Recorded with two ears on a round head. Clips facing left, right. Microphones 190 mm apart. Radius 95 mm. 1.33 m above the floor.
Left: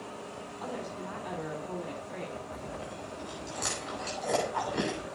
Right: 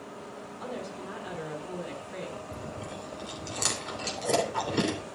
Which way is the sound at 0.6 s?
15° right (ahead or behind).